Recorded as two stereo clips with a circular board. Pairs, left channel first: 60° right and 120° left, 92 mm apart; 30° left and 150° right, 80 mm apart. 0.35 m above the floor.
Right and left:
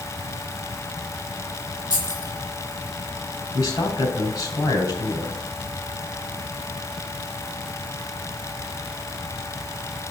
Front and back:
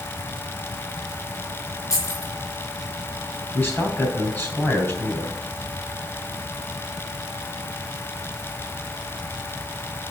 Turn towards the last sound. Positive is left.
turn(degrees=-25)